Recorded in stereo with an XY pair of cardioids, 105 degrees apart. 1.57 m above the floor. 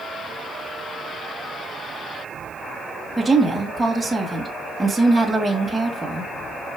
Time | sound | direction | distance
3.2 | a woman speaking | 10° right | 1.6 m